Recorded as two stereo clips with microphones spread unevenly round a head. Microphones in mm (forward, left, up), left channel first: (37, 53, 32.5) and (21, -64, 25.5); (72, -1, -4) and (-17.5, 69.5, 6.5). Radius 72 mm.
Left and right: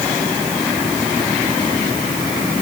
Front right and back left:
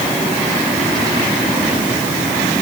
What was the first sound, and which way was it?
Only background noise.